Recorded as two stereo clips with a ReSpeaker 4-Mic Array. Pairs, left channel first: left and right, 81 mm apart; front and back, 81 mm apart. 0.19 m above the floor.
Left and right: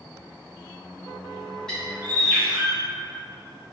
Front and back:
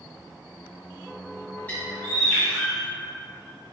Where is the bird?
25° left, 1.5 m.